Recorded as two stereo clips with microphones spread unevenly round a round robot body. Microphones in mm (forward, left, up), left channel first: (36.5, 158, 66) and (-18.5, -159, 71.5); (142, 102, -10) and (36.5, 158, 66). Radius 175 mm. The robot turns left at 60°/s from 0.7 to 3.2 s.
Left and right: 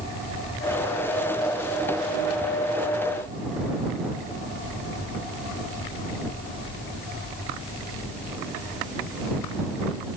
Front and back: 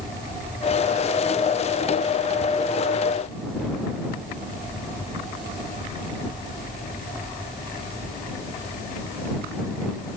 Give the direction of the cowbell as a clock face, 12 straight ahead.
I don't hear a cowbell.